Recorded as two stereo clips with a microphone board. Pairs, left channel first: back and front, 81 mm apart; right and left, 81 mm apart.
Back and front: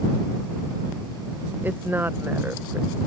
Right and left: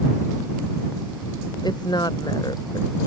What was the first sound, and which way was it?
A woman speaking, 65° right.